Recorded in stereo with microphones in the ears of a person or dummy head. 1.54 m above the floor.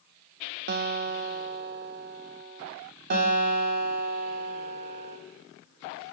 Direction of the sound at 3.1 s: 55° right (ahead or behind).